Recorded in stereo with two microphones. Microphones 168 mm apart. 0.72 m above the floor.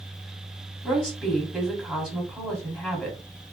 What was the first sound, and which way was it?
A woman speaking, centre (ahead or behind).